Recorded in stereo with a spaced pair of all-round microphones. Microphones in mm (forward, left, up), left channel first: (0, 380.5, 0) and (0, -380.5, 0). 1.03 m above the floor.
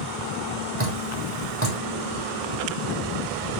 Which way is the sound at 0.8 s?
15° right (ahead or behind).